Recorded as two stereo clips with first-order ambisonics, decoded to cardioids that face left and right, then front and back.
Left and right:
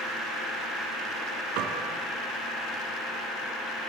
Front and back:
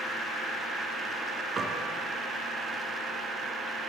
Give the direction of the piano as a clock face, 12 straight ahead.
4 o'clock.